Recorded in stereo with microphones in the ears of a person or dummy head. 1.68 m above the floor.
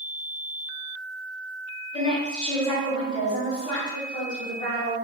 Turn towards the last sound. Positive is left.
turn(degrees=40)  # may be behind; listen again after turning